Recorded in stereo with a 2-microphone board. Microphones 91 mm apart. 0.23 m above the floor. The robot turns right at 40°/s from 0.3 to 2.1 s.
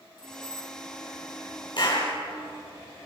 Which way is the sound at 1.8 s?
50° left (ahead or behind).